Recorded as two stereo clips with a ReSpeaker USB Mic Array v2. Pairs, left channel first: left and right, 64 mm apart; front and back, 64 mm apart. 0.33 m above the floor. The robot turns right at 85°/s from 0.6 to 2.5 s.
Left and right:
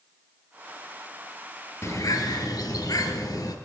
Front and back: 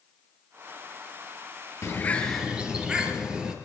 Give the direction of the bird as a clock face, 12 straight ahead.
10 o'clock.